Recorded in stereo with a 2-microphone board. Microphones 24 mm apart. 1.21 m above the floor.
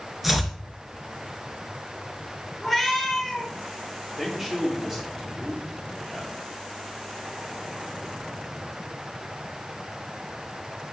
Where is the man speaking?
15° right (ahead or behind), 4 m.